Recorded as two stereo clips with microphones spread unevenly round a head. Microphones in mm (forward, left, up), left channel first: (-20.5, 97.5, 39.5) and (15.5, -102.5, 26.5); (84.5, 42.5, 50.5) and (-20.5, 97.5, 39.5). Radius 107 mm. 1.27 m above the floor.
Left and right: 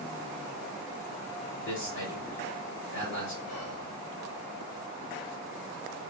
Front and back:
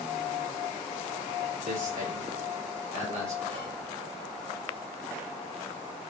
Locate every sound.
1.6 s a man speaking: 135° left, 3 m
3.5 s whispering: 115° left, 2 m